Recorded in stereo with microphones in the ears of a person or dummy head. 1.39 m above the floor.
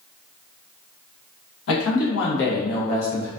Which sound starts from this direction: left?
A man speaking, at 1.7 s.